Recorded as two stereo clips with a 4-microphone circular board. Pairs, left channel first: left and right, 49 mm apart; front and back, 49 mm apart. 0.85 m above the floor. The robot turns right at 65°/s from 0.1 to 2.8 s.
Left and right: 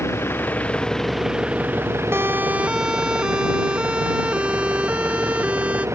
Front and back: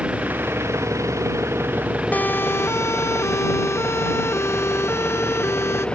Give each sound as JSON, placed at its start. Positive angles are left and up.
{"t": 0.0, "sound": "an engine running", "azimuth_deg": 115}
{"t": 2.1, "sound": "a siren", "azimuth_deg": -60}